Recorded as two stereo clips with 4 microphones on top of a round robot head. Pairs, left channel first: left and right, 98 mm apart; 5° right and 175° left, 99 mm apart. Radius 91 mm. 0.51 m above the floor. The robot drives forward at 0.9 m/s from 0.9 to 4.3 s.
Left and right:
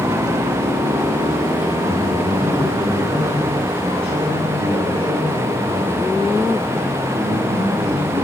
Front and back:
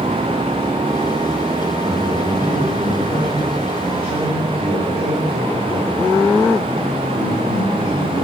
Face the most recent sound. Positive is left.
turn(degrees=-115)